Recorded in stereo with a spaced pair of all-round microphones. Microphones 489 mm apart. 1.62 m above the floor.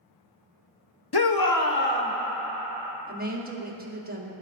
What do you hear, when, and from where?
1.1 s a shout: 50° left (ahead or behind), 0.7 m; by 2.1 s 10° left (ahead or behind), 0.9 m
3.1 s a woman speaking: 20° right (ahead or behind), 1.0 m